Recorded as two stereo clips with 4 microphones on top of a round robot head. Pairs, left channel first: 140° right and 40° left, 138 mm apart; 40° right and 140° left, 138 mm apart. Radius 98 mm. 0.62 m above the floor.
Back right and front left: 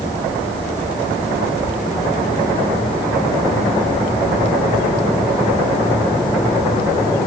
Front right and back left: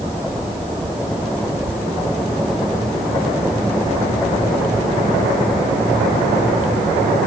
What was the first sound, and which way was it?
Only background noise.